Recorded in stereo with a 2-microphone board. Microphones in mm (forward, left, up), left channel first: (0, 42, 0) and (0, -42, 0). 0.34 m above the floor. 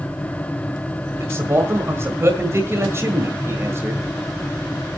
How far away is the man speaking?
About 1.8 m.